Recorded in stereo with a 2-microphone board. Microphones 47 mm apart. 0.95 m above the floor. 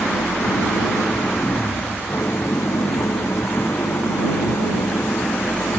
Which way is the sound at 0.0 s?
90° left.